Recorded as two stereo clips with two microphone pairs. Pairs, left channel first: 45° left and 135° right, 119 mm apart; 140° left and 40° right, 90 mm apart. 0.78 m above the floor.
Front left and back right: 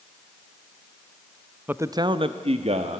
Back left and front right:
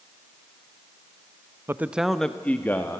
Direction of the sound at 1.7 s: 75° right.